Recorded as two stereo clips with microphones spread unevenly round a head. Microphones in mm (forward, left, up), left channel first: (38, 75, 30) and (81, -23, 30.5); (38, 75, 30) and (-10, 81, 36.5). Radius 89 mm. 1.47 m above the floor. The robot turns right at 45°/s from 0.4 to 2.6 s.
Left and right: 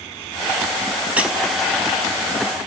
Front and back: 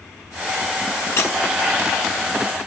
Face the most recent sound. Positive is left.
turn(degrees=75)